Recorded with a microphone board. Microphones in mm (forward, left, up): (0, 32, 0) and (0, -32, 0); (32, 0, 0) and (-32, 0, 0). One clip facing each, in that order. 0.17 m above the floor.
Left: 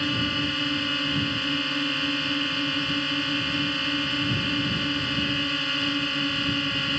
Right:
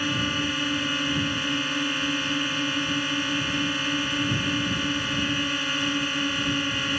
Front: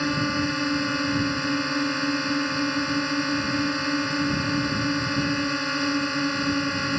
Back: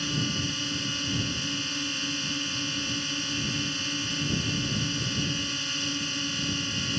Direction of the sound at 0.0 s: 5° right.